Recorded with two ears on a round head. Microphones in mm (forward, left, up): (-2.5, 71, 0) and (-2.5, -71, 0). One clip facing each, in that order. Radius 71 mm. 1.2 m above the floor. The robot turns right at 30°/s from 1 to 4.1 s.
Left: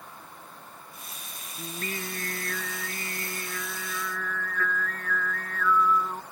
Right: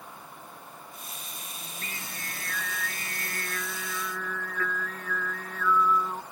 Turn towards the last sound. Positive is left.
turn(degrees=-170)